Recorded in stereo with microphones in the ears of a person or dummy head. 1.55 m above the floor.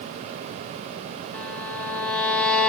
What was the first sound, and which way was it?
A violin, 5° left (ahead or behind).